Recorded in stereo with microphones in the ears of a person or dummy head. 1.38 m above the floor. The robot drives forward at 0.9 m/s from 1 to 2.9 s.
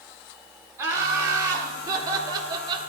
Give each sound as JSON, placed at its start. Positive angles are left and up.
{"t": 0.8, "sound": "laughter", "side_deg": -15, "distance_m": 4.0}